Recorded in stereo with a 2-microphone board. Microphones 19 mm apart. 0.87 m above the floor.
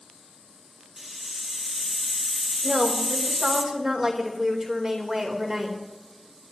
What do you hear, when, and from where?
1.0 s a hiss: 10° right (ahead or behind), 1.7 m
2.6 s a woman speaking: 30° right (ahead or behind), 2.5 m